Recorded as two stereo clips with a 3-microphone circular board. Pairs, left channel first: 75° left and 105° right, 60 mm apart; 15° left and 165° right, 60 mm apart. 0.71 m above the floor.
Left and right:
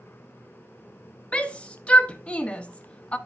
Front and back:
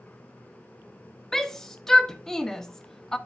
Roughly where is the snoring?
I don't hear snoring.